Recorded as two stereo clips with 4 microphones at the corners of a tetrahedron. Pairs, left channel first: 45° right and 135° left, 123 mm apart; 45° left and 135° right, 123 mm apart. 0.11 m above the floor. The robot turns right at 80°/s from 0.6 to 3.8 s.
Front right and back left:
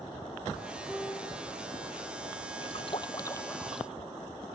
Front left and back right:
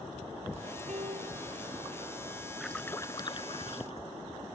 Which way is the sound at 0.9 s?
135° right.